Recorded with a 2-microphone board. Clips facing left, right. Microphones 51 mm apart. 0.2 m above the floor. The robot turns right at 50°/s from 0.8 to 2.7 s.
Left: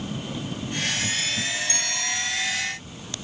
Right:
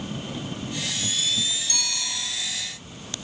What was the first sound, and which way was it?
A bicycle bell, 35° left (ahead or behind).